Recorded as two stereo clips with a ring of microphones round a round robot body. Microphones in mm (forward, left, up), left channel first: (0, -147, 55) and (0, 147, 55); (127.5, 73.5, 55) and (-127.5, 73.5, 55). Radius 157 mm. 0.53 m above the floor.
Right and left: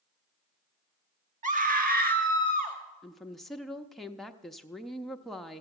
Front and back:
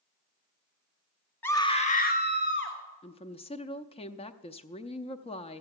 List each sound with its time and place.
1.4 s a scream: 75° left, 1.0 m; by 2.8 s 30° left, 1.8 m
3.0 s a woman speaking: straight ahead, 0.6 m